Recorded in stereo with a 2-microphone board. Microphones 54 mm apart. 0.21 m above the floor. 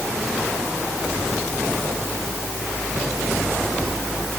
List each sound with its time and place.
Only background noise.